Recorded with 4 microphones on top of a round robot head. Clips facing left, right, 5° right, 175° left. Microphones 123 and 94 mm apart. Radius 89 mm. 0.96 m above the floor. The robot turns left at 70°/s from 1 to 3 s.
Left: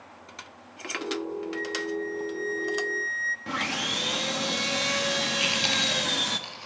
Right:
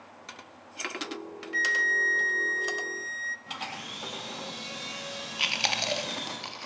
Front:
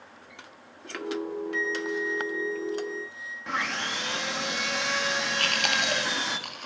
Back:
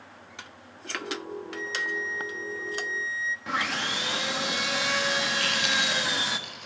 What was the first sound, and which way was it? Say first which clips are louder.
A flute: left 3 dB, front 3 dB; 55° right.